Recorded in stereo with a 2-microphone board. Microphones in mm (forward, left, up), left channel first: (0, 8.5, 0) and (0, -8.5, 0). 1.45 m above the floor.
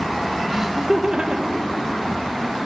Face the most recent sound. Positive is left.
turn(degrees=-70)  # may be behind; listen again after turning